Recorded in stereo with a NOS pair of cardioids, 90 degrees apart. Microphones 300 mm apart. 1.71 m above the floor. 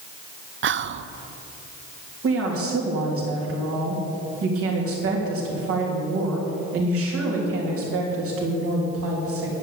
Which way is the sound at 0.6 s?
45° right.